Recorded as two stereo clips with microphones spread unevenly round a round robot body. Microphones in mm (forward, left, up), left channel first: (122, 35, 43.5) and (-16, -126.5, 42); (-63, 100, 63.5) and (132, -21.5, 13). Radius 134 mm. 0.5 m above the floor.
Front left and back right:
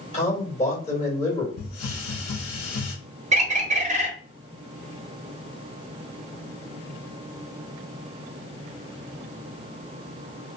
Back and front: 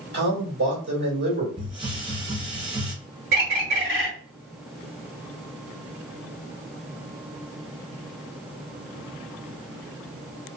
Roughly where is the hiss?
Ahead left.